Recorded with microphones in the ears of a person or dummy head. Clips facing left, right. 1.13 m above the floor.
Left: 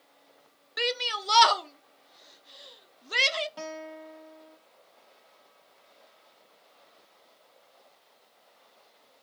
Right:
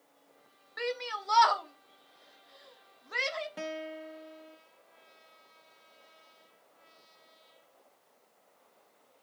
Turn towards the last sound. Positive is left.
turn(degrees=-15)  # may be behind; listen again after turning